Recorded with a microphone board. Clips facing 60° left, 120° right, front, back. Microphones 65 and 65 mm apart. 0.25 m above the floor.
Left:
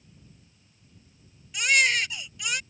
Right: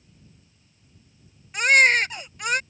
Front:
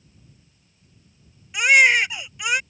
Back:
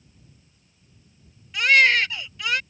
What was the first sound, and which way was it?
A baby crying, 75° right.